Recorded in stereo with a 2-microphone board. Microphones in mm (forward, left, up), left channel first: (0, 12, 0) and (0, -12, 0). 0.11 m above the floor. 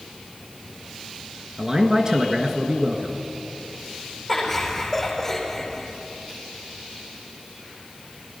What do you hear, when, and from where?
1.6 s a man speaking: 30° right (ahead or behind), 1.7 m
4.3 s laughter: 15° left (ahead or behind), 4.5 m